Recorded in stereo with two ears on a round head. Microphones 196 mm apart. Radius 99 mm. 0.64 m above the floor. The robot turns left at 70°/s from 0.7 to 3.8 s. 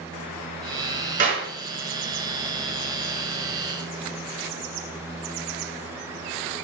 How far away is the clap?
About 6 m.